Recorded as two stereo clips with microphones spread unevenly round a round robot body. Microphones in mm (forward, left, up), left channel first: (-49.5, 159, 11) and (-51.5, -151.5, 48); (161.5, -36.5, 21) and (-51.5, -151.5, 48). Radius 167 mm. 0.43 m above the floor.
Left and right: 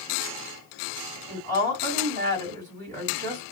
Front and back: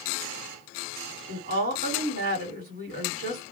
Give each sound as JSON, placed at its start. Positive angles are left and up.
{"t": 1.3, "sound": "a woman speaking", "azimuth_deg": -105, "distance_m": 1.8}